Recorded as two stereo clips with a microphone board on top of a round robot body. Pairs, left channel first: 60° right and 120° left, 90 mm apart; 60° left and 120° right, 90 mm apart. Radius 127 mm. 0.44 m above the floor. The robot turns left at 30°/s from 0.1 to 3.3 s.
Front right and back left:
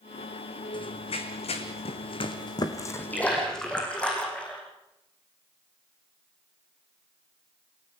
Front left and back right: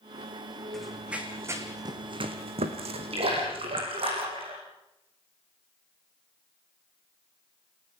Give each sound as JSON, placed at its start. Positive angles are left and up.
{"t": 0.7, "sound": "running footsteps", "azimuth_deg": -25, "distance_m": 2.5}
{"t": 3.1, "sound": "a splash", "azimuth_deg": -130, "distance_m": 6.0}